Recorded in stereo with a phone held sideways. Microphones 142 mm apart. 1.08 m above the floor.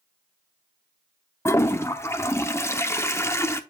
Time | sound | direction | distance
1.4 | a toilet flushing | 20° left (ahead or behind) | 0.7 m